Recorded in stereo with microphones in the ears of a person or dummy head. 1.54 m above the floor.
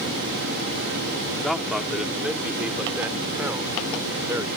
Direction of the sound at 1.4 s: Centre (ahead or behind).